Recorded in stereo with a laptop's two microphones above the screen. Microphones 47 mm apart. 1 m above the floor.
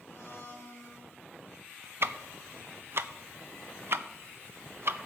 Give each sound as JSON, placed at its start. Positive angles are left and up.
{"t": 0.1, "sound": "a blender", "side_deg": 80, "distance_m": 2.5}
{"t": 2.0, "sound": "ticking", "side_deg": -55, "distance_m": 0.6}